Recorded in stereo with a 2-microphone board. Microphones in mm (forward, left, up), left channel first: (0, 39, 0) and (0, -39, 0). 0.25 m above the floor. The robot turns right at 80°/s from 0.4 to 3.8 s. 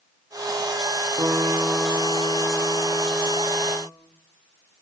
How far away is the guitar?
About 7.5 m.